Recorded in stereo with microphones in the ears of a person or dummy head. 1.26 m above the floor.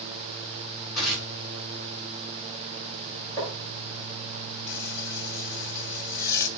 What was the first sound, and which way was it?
Tearing paper, 55° left (ahead or behind).